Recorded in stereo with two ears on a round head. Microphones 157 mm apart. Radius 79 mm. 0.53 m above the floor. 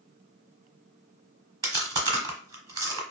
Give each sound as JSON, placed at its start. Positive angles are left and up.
{"t": 1.6, "sound": "chewing", "side_deg": -25, "distance_m": 1.0}